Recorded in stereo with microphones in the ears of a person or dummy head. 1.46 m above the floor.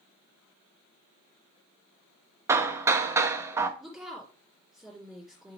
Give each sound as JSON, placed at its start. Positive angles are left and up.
{"t": 2.5, "sound": "hammering", "side_deg": -15, "distance_m": 0.6}
{"t": 3.8, "sound": "a woman speaking", "side_deg": 0, "distance_m": 2.0}